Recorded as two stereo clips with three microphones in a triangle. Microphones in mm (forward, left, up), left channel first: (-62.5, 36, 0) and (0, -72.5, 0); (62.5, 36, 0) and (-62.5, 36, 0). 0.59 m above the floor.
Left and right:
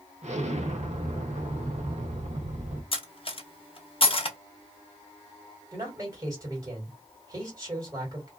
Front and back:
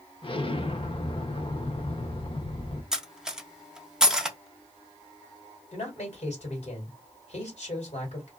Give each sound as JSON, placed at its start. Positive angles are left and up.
{"t": 0.2, "sound": "an explosion", "azimuth_deg": -40, "distance_m": 0.7}
{"t": 2.9, "sound": "cutlery clinking", "azimuth_deg": 95, "distance_m": 0.6}
{"t": 5.7, "sound": "a man speaking", "azimuth_deg": 0, "distance_m": 1.8}